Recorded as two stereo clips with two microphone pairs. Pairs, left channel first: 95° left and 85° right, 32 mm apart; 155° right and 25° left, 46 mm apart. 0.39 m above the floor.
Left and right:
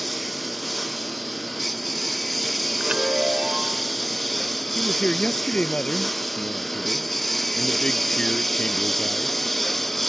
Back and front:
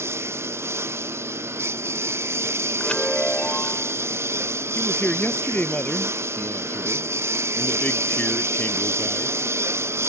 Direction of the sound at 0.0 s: 5° left.